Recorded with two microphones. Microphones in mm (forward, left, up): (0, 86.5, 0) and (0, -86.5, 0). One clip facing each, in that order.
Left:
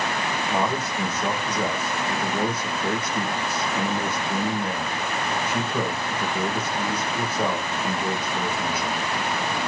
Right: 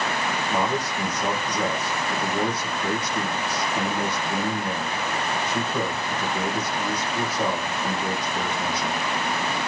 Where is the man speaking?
10° left (ahead or behind), 3 m.